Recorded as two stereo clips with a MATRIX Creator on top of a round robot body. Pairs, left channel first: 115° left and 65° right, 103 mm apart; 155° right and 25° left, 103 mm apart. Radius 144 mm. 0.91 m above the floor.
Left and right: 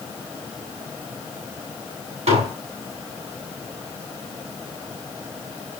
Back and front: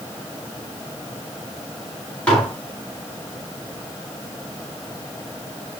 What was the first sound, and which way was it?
Dishes clattering, 80° right.